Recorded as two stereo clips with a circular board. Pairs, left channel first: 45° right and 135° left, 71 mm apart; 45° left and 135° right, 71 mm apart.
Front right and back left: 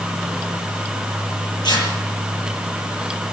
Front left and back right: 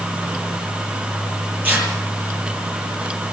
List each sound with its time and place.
1.6 s tearing paper: 65° right, 10 m